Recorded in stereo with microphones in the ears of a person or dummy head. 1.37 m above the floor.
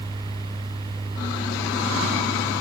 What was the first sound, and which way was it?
Only background noise.